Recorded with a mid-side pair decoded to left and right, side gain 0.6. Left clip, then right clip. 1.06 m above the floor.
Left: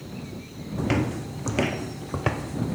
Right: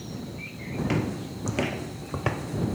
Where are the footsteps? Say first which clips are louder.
Left 3 dB; 25° left; by 2.8 s 10° left.